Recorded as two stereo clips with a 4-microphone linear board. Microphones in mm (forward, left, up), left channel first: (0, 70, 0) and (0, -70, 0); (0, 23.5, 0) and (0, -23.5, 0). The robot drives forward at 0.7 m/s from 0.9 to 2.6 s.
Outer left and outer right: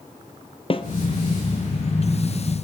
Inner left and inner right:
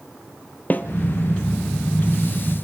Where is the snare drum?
40° left (ahead or behind), 1.8 m.